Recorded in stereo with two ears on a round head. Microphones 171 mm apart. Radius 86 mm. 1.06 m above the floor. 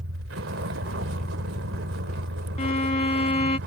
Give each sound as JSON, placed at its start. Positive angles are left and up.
{"t": 0.0, "sound": "a vehicle", "side_deg": -75}
{"t": 2.6, "sound": "a violin", "side_deg": 35}